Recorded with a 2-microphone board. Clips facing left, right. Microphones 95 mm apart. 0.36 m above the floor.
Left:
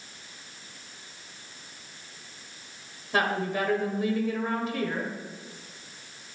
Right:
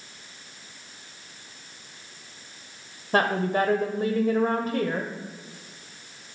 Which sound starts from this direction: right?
A woman speaking, at 3.1 s.